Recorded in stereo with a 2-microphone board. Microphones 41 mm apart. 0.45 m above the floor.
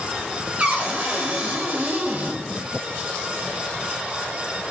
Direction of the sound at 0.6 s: 30° right (ahead or behind).